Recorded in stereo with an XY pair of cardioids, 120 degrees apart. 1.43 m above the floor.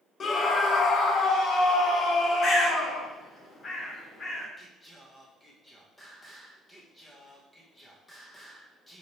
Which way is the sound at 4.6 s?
10° left.